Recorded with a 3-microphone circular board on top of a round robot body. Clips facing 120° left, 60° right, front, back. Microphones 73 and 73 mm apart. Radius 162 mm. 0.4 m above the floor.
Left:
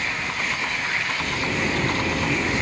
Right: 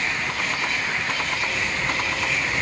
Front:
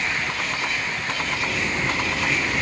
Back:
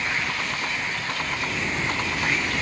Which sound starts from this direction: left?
A zipper, at 1.2 s.